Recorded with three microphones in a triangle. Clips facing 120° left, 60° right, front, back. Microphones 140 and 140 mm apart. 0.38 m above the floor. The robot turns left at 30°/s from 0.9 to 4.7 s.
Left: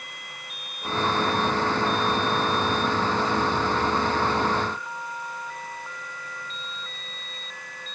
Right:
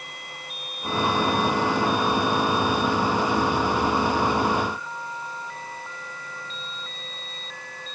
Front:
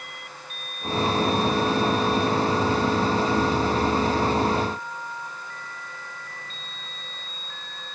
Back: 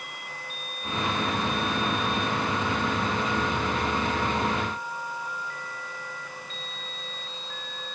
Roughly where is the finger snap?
No finger snap in this recording.